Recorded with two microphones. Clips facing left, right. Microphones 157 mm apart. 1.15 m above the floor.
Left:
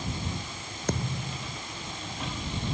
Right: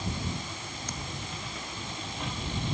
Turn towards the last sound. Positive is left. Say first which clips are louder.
# left 11 dB
turn(degrees=65)  # may be behind; listen again after turning